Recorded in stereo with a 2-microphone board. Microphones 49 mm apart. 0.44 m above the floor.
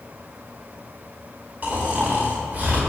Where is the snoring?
35° right (ahead or behind), 1.9 m.